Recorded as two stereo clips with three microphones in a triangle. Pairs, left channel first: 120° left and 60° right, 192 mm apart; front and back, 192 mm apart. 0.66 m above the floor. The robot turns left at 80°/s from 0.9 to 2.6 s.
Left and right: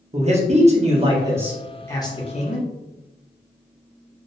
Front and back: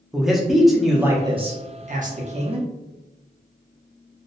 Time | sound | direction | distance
0.1 | a man speaking | 90° right | 0.7 m